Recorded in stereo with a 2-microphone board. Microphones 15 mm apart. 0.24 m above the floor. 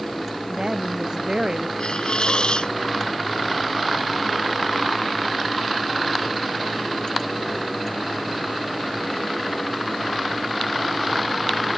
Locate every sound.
0.5 s a woman speaking: 60° right (ahead or behind)
1.8 s a hiss: 70° left (ahead or behind)